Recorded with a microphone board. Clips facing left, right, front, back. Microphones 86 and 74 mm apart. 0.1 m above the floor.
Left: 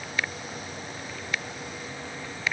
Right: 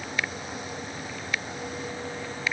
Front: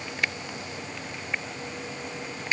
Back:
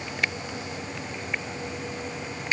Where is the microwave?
I don't hear a microwave.